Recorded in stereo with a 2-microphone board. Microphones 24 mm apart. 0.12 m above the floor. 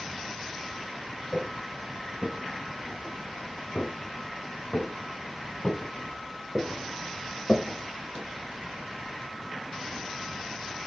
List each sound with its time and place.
1.3 s footsteps: 20° left (ahead or behind), 1.9 m; by 8.2 s 45° left (ahead or behind), 2.5 m